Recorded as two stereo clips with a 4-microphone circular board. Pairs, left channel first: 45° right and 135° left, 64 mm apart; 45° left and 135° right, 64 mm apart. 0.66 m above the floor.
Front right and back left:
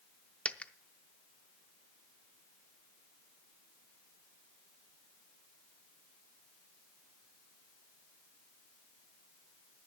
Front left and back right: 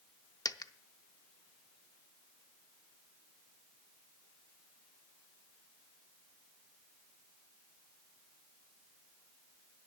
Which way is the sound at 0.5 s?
25° left.